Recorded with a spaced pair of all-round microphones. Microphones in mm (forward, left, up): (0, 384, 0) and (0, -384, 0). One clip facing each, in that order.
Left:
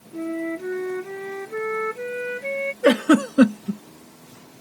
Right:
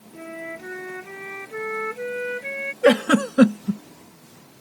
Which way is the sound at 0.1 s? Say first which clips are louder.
Left 11 dB; 65° left (ahead or behind).